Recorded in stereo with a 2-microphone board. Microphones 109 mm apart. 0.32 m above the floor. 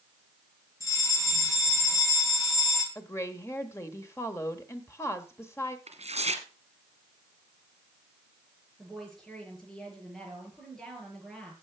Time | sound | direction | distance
0.8 | a fire alarm | 30° left (ahead or behind) | 3.5 m
3.0 | a woman speaking | 25° left (ahead or behind) | 1.2 m
5.9 | tearing paper | 80° right | 1.3 m
8.8 | a woman speaking | 5° left (ahead or behind) | 6 m